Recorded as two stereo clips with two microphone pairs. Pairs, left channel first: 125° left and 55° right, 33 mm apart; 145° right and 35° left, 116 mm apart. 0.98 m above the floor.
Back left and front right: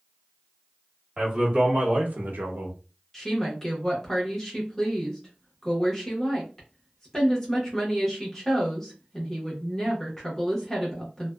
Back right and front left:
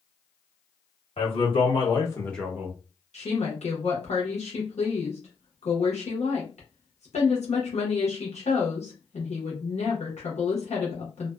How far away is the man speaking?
About 1.7 m.